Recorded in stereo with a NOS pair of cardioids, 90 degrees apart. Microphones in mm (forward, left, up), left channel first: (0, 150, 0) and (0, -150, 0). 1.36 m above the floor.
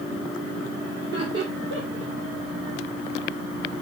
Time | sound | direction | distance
1.0 | laughter | 40° right | 3.5 m